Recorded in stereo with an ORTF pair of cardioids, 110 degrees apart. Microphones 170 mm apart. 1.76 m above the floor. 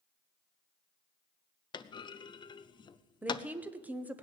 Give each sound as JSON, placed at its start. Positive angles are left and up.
{"t": 1.7, "sound": "a clunk", "azimuth_deg": 25, "distance_m": 0.7}
{"t": 3.2, "sound": "a woman speaking", "azimuth_deg": -10, "distance_m": 1.1}